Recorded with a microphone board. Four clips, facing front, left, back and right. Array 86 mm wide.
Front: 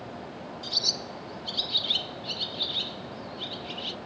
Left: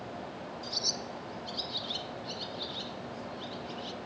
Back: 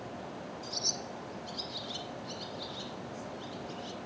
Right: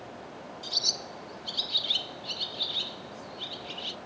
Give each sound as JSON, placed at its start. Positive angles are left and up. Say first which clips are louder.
{"t": 0.6, "sound": "a bird", "louder": "left 1 dB, front 3 dB", "azimuth_deg": -40, "distance_m": 0.6}